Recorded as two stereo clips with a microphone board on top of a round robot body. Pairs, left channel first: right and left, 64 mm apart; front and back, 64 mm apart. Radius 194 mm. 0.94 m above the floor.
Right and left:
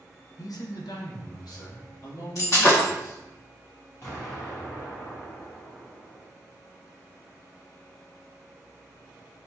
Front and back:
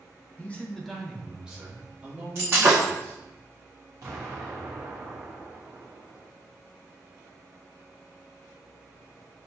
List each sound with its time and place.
0.4 s a man speaking: 65° right, 0.6 m; by 3.2 s 125° right, 1.8 m
2.4 s breaking glass: 130° right, 1.4 m
4.0 s an explosion: 145° right, 1.0 m